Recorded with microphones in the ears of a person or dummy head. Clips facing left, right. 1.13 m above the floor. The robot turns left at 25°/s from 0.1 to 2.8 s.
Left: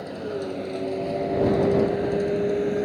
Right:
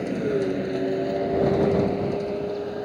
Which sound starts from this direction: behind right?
A vehicle, at 0.0 s.